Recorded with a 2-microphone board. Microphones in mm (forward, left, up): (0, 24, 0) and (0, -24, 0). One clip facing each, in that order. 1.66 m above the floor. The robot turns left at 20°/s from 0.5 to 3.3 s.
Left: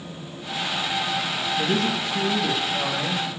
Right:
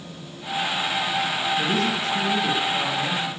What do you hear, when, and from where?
1.6 s a man speaking: straight behind, 2.5 m; by 3.3 s 150° left, 2.5 m